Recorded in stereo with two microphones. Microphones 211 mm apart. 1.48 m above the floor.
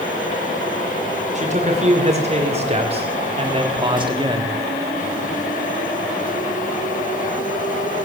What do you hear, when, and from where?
1.4 s a man speaking: 35° right (ahead or behind), 5.5 m; by 4.5 s 20° right (ahead or behind), 3 m